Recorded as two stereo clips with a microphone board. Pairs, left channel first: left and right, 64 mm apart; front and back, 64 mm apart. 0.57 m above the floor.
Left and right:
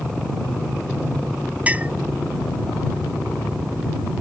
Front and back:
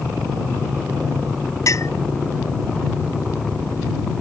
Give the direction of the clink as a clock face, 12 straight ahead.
1 o'clock.